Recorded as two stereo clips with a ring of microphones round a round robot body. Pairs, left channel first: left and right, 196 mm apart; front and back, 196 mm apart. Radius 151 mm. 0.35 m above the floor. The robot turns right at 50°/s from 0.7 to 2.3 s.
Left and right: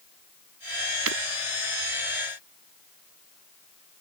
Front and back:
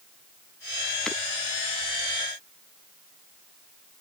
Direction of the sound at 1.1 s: 90° right.